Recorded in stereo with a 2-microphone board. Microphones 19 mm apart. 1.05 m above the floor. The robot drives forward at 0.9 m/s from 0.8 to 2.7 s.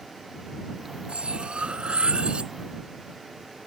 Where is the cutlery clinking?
70° right (ahead or behind); by 2.5 s 60° right (ahead or behind).